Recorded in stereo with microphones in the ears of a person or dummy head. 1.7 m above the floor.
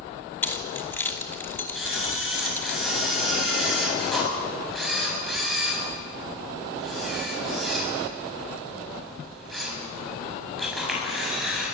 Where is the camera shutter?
Centre (ahead or behind), 8 m.